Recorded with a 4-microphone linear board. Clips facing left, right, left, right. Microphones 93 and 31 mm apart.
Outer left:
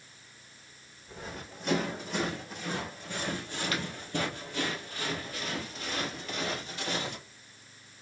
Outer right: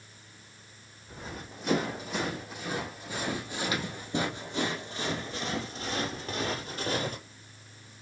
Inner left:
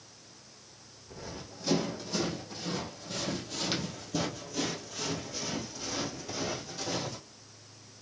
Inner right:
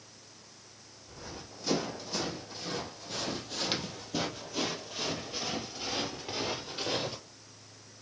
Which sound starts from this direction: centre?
Running footsteps, at 1.1 s.